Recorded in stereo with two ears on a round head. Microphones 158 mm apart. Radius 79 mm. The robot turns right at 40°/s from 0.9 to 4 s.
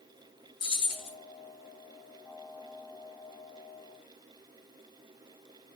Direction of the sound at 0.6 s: 30° left (ahead or behind).